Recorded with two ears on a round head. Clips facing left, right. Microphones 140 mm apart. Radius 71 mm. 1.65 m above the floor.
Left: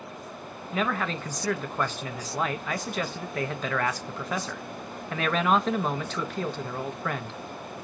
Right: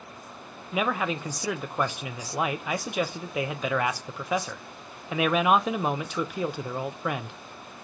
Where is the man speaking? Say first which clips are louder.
Right 1 dB; 10° right (ahead or behind), 0.7 m.